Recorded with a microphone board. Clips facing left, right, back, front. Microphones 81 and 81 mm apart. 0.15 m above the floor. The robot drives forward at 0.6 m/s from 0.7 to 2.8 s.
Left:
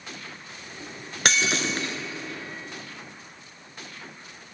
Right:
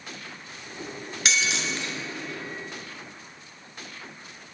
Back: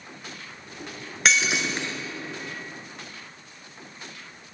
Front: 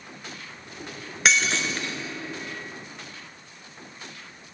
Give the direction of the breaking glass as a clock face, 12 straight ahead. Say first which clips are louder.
Left 3 dB, even; 9 o'clock.